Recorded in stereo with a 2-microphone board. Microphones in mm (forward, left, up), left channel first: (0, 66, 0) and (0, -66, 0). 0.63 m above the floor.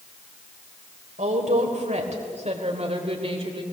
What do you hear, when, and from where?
1.2 s a woman speaking: 65° right (ahead or behind), 3 m; by 3.6 s 45° right (ahead or behind), 3 m